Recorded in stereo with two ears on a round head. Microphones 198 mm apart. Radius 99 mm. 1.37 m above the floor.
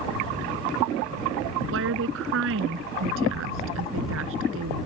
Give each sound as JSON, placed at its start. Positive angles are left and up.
{"t": 1.7, "sound": "a woman speaking", "side_deg": -60}